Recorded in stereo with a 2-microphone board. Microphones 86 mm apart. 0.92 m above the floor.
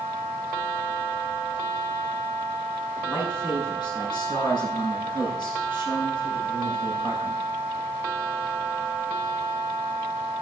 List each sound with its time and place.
3.0 s a man speaking: 65° left (ahead or behind), 10 m